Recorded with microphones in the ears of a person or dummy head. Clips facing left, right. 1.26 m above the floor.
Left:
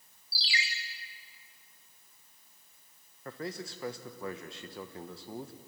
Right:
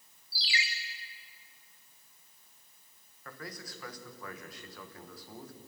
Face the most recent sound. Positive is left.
turn(degrees=25)  # may be behind; listen again after turning